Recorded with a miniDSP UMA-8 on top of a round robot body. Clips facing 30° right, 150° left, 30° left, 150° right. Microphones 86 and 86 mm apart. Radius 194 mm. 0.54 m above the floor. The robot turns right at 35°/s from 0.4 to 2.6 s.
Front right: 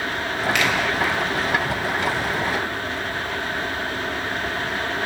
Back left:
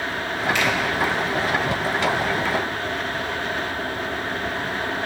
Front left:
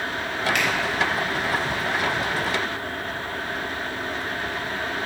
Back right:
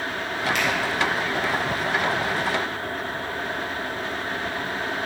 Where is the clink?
No clink in this recording.